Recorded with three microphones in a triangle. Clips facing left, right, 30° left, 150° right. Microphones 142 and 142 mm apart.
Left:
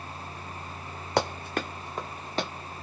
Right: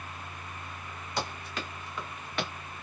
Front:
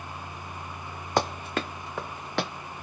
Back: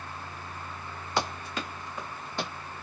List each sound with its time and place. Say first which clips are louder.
1.2 s running footsteps: left 8 dB, front 5 dB; 70° left, 0.9 m; by 2.5 s 30° left, 1.1 m